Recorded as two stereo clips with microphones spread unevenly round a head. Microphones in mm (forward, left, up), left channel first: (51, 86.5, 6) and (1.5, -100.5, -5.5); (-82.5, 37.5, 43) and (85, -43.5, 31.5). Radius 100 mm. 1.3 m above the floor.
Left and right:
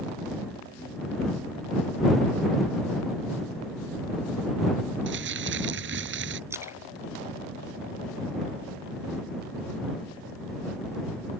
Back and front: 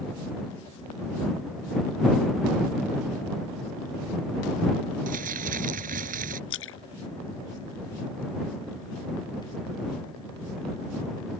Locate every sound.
5.1 s crumpling: 75° right
6.5 s a splash: 175° left